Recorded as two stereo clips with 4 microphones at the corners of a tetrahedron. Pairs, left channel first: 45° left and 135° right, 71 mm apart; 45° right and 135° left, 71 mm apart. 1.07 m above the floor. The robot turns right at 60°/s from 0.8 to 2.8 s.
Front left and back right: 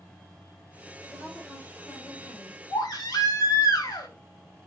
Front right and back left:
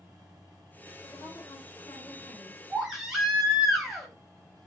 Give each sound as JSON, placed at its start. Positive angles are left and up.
{"t": 1.0, "sound": "a woman speaking", "azimuth_deg": -45, "distance_m": 5.0}
{"t": 2.7, "sound": "a baby crying", "azimuth_deg": 45, "distance_m": 3.0}